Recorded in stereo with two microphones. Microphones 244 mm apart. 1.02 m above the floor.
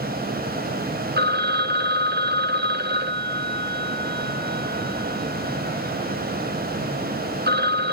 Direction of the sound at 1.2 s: 40° right (ahead or behind).